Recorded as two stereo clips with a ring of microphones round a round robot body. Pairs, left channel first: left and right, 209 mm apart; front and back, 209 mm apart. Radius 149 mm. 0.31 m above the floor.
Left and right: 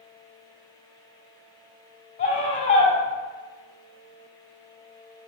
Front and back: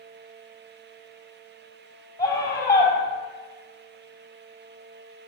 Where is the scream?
70° left, 2.5 m.